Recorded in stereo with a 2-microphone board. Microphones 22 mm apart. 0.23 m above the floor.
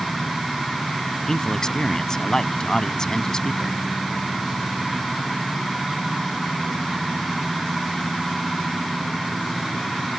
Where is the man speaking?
30° left (ahead or behind).